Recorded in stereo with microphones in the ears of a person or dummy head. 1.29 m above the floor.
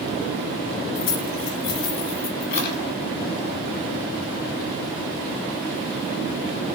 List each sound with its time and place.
0.9 s keys jangling: 75° left (ahead or behind), 1.9 m; by 2.8 s 55° left (ahead or behind), 2.5 m